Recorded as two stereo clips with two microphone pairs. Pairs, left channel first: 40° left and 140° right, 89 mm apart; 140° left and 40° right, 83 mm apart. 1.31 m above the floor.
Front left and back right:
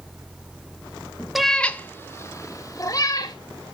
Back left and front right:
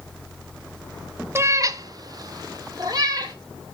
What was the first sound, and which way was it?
A cat meowing, 60° right.